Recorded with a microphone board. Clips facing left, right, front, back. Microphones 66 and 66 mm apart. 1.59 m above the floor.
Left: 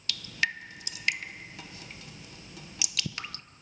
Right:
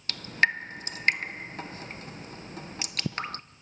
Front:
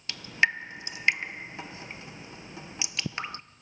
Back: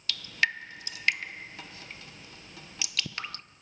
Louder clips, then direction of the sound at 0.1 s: Right 6 dB, front 3 dB; 60° right.